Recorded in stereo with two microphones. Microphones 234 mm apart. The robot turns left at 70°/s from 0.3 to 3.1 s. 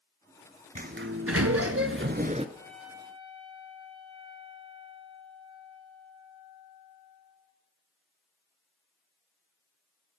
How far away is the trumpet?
About 1.5 m.